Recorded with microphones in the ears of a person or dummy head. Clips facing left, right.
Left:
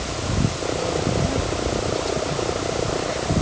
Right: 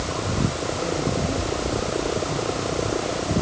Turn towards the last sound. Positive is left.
No sound to turn to.